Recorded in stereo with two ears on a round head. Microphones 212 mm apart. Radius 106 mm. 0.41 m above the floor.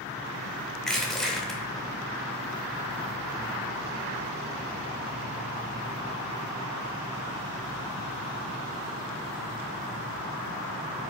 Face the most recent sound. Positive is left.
turn(degrees=0)  # may be behind; listen again after turning